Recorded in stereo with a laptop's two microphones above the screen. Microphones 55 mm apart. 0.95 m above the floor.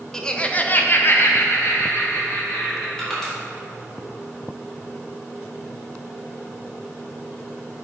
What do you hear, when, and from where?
0.1 s laughter: 10° left (ahead or behind), 0.8 m; by 2.9 s 50° left (ahead or behind), 2.0 m
3.0 s crushing: 10° left (ahead or behind), 2 m